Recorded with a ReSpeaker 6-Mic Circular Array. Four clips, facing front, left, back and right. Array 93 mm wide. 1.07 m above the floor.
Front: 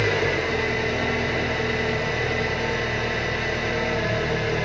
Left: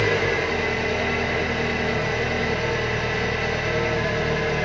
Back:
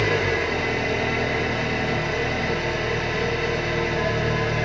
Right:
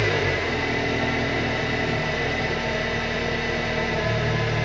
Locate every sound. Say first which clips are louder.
0.0 s an engine running: left 2 dB, even; 110° left, 0.9 m